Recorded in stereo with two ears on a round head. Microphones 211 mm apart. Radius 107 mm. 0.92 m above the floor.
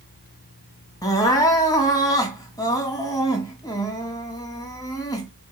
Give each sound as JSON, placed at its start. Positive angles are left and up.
{"t": 1.0, "sound": "crying", "side_deg": 15, "distance_m": 2.0}